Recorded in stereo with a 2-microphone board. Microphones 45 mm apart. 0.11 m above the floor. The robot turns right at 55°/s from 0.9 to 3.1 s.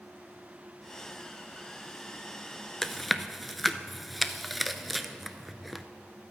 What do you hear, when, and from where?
2.8 s chewing: 10° left (ahead or behind), 0.6 m; by 5.8 s centre (ahead or behind), 0.6 m